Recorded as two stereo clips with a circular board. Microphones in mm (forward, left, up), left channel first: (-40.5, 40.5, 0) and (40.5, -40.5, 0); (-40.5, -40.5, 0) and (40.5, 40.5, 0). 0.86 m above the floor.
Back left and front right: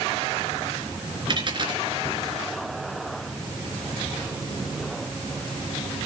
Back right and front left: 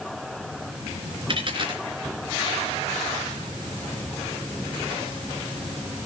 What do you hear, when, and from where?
1.3 s a dropped coin: straight ahead, 3.5 m